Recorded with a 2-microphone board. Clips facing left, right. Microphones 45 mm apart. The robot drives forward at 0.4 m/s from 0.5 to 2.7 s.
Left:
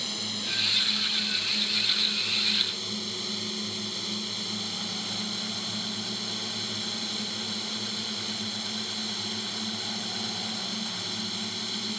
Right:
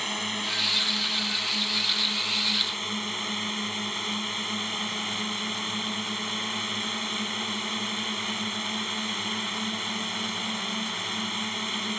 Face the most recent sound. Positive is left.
turn(degrees=-40)  # may be behind; listen again after turning